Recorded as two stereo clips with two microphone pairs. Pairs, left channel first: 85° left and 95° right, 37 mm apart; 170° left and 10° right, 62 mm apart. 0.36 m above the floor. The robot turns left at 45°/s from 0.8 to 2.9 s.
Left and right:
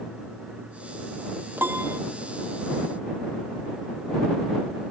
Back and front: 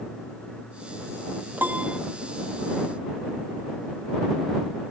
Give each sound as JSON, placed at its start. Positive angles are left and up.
{"t": 1.6, "sound": "a piano", "azimuth_deg": -70}